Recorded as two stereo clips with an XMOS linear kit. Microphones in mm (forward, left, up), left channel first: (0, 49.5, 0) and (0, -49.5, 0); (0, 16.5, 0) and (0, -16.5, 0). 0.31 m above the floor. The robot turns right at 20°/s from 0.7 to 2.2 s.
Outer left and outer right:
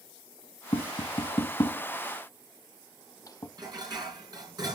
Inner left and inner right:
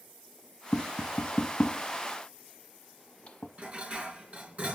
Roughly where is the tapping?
Left.